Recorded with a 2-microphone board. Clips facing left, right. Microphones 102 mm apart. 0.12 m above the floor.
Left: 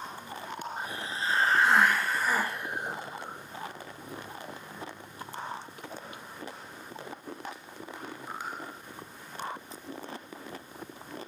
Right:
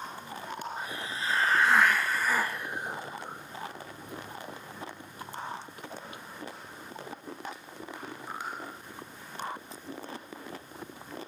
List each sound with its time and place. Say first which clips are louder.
0.8 s a hiss: left 1 dB; 30° left (ahead or behind), 1.1 m